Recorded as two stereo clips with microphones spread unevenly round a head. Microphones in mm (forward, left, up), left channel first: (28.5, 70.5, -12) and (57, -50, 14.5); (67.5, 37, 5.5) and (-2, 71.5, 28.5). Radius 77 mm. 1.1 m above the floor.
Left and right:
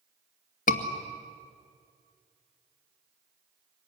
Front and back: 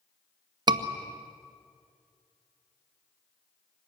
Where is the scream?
120° left, 1.9 m.